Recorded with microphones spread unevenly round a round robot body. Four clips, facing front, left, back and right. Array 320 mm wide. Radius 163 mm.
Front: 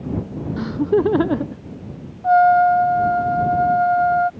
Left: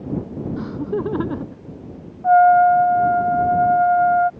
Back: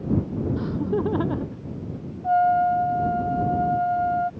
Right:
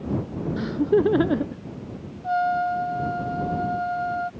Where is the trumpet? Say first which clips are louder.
Left 11 dB, front 6 dB; 45° left.